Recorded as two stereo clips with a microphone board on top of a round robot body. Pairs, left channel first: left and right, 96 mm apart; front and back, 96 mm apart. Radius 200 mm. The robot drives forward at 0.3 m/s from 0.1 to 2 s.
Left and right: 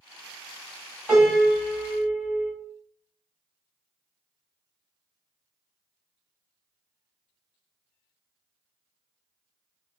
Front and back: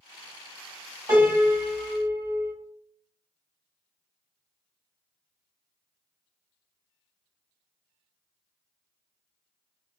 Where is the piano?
170° right, 1.7 m.